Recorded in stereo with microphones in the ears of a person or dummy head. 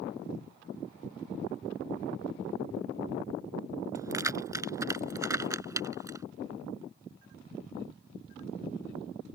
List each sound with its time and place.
4.0 s keys jangling: 15° right (ahead or behind)